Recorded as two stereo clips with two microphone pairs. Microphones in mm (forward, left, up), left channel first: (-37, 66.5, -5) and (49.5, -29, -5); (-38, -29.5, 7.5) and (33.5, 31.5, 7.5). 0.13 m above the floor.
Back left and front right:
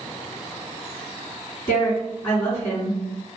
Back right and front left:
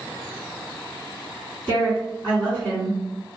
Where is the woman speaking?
170° left, 1.6 m.